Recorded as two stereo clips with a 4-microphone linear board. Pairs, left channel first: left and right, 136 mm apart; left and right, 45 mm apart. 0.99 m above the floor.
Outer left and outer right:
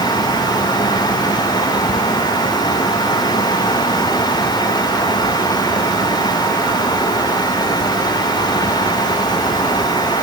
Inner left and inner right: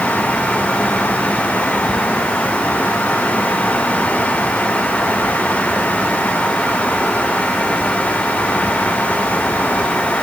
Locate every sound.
Only background noise.